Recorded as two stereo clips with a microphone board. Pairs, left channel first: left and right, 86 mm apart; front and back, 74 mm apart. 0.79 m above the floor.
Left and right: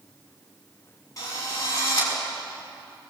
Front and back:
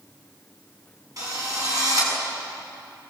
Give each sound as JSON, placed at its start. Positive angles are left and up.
{"t": 1.2, "sound": "a drill", "azimuth_deg": 140, "distance_m": 6.5}